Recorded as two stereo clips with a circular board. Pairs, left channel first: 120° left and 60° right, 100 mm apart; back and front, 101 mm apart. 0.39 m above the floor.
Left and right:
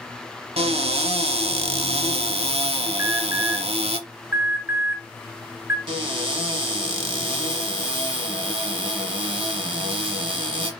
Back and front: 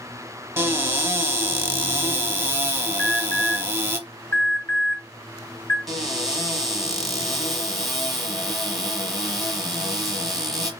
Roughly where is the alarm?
Behind right.